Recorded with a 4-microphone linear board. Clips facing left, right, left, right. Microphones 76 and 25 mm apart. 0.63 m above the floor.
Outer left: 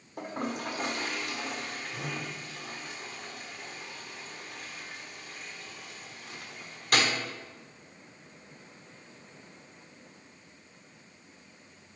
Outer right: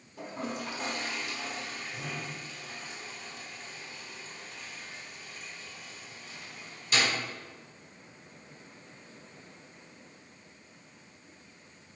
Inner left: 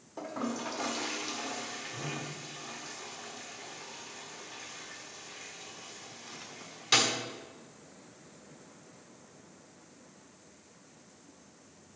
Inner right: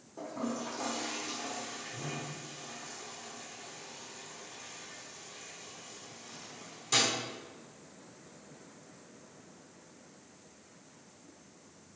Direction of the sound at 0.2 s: 55° left (ahead or behind).